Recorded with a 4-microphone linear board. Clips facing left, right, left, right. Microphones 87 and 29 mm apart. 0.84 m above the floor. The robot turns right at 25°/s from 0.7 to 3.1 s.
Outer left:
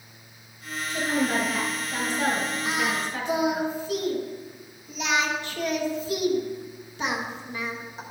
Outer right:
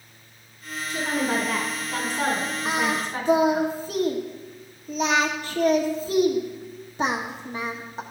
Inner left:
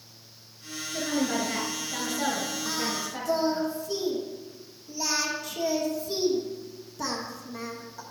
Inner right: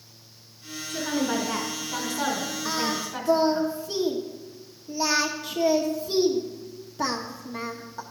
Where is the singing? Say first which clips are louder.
Outer right 4 dB, inner right 3 dB; 40° right (ahead or behind), 1.0 m; by 8.0 s 35° right (ahead or behind), 1.0 m.